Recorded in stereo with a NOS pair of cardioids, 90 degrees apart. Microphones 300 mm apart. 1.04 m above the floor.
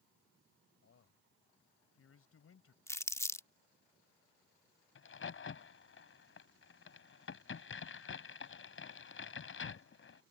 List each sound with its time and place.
0.8 s a man speaking: 50° left
2.9 s crumpling: 10° left
5.0 s a crack: 45° left